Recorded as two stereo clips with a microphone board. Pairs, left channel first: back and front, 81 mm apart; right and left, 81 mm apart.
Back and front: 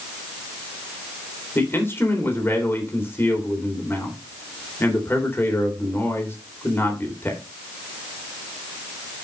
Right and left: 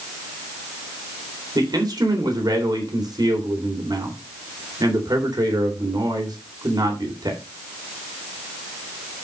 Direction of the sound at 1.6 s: 120° left.